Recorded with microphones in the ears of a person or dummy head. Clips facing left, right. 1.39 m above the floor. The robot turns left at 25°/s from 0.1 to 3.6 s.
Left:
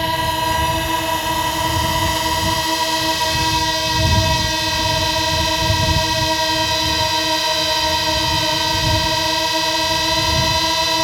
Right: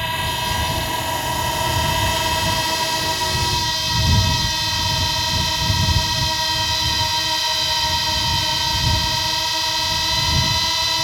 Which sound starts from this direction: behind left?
A drone, at 0.0 s.